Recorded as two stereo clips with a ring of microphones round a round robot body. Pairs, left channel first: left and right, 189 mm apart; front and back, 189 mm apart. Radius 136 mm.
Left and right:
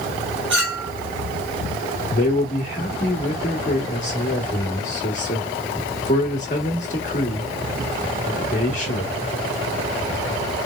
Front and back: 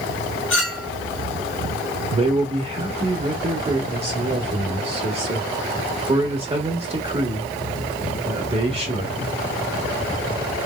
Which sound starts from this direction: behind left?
A man speaking, at 2.1 s.